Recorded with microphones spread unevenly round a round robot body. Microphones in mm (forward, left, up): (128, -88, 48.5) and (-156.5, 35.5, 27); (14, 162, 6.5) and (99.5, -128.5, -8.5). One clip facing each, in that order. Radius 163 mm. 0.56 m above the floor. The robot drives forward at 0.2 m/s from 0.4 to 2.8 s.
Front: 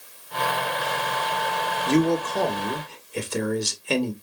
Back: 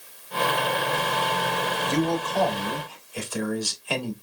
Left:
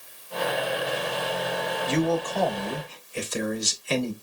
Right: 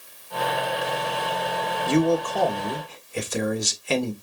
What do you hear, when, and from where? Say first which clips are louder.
1.9 s a man speaking: front 5 dB, right 5 dB; 70° right, 1.5 m; by 4.1 s 80° right, 1.4 m